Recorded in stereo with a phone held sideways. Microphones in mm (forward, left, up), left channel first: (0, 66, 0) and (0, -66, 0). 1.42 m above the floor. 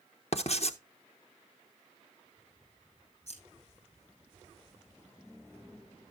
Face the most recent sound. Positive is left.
turn(degrees=55)  # may be behind; listen again after turning